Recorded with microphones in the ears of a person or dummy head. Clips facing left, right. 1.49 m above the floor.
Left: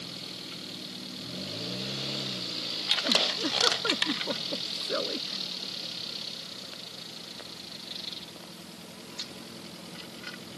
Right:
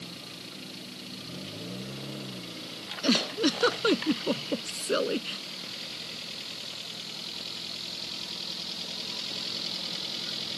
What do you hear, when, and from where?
3.0 s a giggle: 45° right (ahead or behind)